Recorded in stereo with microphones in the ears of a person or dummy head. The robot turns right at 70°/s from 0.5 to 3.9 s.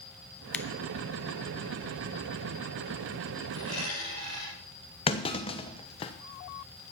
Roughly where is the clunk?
Left.